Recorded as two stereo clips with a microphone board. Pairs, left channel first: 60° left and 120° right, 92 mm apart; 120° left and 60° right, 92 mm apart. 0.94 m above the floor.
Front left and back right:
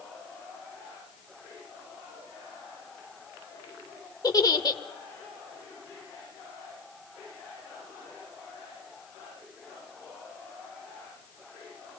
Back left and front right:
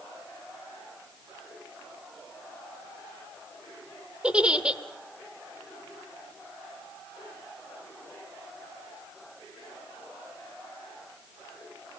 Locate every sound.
4.2 s a giggle: 20° left, 1.1 m